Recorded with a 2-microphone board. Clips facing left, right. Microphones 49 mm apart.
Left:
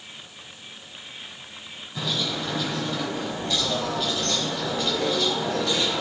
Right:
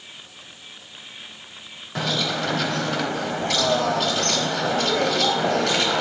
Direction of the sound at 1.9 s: 75° right (ahead or behind).